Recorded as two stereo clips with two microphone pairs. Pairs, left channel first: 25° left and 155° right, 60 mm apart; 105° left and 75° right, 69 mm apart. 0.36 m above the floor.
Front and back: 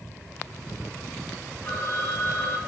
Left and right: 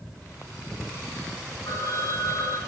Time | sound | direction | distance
1.6 | a phone ringing | 65° left | 10 m